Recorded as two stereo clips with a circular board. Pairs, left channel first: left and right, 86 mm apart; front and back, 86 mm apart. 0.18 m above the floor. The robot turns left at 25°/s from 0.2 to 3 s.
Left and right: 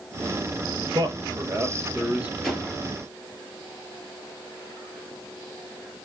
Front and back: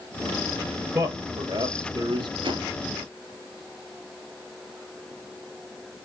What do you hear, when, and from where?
0.9 s a man speaking: 135° right, 2.5 m; by 2.3 s 170° right, 2.5 m
2.4 s a whoosh: 175° left, 3 m; by 2.7 s 170° left, 3 m